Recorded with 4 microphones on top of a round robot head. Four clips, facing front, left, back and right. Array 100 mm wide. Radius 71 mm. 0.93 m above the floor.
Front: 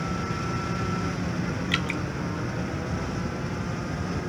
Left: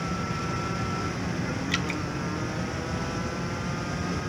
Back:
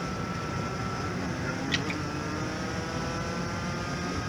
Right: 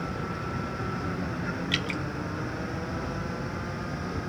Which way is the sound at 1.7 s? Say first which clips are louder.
Left 1 dB, front 3 dB; 30° left.